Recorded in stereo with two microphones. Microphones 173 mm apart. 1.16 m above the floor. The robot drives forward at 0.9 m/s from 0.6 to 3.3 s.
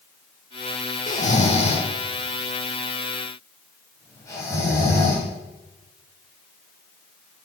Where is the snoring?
45° left (ahead or behind), 1.0 m; by 5.3 s 15° left (ahead or behind), 2.5 m.